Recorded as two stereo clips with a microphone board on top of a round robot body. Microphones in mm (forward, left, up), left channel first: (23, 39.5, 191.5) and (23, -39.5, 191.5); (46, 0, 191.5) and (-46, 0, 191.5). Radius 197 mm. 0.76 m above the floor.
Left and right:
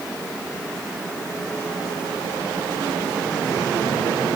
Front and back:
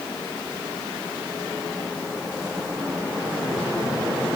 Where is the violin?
I don't hear a violin.